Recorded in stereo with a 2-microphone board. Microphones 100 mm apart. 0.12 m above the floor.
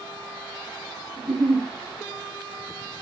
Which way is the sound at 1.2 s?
Centre (ahead or behind).